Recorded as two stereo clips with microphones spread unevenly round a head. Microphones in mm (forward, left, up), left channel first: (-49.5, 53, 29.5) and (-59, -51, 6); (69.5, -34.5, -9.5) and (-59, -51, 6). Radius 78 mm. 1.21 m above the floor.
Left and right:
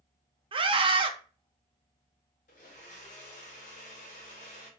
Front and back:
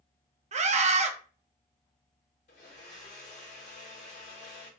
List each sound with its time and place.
0.5 s a scream: 135° right, 0.6 m
2.5 s a blender: 60° left, 0.7 m